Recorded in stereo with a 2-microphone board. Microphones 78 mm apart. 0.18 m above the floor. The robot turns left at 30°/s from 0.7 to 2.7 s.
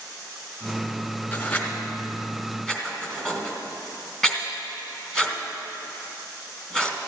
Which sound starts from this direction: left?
Writing, at 1.3 s.